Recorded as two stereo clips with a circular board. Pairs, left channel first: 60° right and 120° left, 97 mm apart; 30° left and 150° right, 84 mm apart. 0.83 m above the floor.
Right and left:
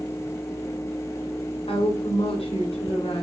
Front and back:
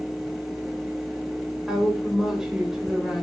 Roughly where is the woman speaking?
Ahead right.